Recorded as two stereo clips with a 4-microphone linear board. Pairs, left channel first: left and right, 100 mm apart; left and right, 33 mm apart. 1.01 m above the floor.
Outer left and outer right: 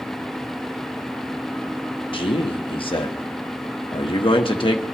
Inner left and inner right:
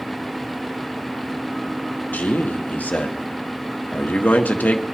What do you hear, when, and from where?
2.1 s a man speaking: 60° left (ahead or behind), 1.4 m